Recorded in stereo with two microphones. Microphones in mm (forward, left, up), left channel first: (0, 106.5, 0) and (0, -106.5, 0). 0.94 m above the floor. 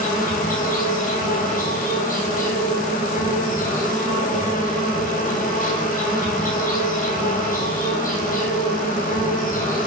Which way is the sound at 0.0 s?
40° left (ahead or behind).